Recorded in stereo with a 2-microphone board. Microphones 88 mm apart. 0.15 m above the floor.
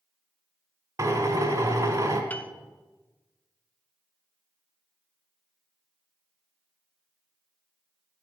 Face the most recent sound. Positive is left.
turn(degrees=20)  # may be behind; listen again after turning